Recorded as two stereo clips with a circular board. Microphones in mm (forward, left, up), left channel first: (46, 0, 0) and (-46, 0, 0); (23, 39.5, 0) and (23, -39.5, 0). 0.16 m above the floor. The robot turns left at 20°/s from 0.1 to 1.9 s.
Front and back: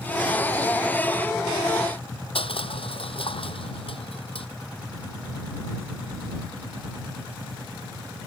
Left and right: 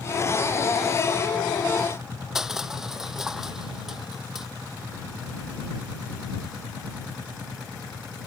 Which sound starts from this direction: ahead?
Crushing, at 2.4 s.